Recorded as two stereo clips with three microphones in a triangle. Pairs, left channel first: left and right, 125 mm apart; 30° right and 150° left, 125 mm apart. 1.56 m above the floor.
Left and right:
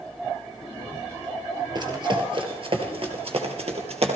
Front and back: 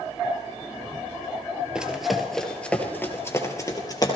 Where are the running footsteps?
130° right, 2 m; by 4.2 s 80° right, 2.5 m.